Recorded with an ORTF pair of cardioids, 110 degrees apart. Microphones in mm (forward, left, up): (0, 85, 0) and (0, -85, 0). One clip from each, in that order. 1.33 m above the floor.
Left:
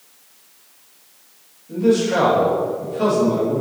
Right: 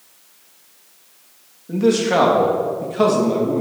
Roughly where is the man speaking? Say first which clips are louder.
Right 1 dB; ahead right.